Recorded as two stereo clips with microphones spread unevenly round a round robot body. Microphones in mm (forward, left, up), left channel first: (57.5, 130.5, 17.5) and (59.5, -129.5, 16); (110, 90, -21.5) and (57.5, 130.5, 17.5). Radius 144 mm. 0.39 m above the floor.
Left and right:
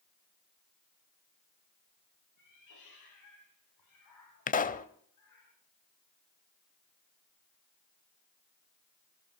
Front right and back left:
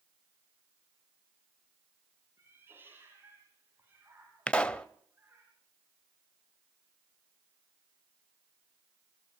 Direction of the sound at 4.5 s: 30° left.